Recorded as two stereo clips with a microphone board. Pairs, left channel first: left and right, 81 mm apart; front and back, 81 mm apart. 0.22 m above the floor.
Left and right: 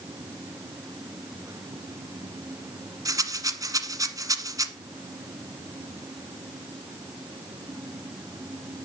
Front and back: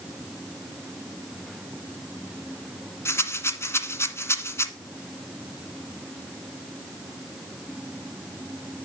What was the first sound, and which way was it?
A rattle, 55° right.